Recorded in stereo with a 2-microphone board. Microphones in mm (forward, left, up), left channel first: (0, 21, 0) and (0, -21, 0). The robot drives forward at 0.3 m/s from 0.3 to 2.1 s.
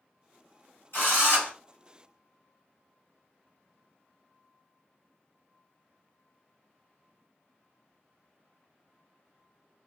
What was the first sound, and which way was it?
A drill, 65° left (ahead or behind).